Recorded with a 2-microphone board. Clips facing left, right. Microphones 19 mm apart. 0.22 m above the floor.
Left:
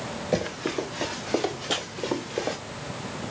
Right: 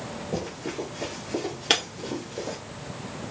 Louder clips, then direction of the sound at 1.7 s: Right 7 dB; 70° right (ahead or behind).